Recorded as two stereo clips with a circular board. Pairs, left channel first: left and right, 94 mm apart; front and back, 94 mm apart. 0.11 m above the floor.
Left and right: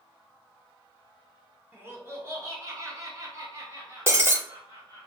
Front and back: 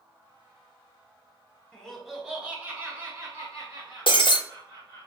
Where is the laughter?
70° right, 1.2 m; by 5.1 s 145° right, 2.5 m.